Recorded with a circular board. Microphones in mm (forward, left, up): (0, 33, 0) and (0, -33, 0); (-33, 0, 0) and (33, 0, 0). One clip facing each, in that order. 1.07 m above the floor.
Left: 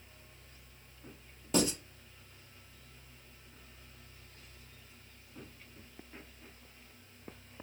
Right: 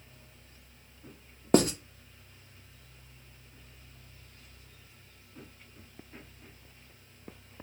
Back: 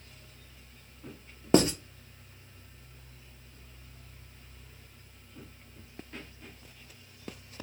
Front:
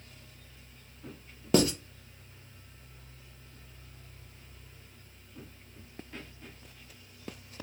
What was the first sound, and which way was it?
Writing, 120° right.